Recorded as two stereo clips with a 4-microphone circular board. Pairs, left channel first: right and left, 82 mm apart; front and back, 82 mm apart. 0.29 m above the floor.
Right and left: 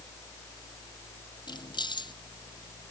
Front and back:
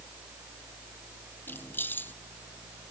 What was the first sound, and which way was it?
Keys jangling, 65° right.